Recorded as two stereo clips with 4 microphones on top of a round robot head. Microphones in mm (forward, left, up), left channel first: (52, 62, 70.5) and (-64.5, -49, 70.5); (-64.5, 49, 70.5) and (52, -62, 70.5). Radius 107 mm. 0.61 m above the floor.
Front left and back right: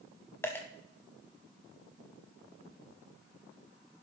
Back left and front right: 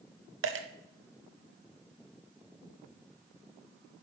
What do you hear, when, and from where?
0.4 s a dropped coin: 35° right, 0.6 m